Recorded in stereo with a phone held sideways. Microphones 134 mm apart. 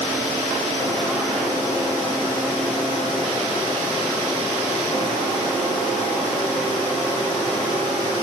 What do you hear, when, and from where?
Only background noise.